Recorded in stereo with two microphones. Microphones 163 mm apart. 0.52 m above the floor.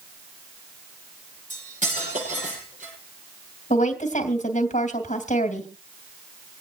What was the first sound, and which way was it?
Cutlery clinking, 50° right (ahead or behind).